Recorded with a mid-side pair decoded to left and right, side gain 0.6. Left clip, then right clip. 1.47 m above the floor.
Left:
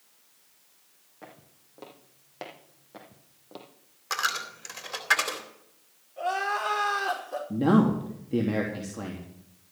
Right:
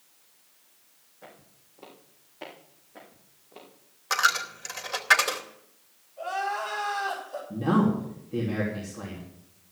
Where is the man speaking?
40° left, 3 m.